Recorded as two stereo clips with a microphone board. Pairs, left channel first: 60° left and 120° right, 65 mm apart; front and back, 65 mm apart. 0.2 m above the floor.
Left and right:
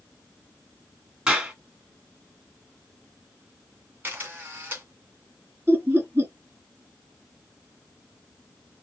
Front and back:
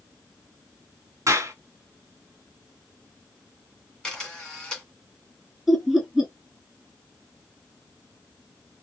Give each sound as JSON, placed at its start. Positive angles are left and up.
{"t": 1.3, "sound": "a clap", "azimuth_deg": 170, "distance_m": 1.9}
{"t": 4.0, "sound": "a camera shutter", "azimuth_deg": -75, "distance_m": 2.0}
{"t": 5.7, "sound": "laughter", "azimuth_deg": -95, "distance_m": 1.4}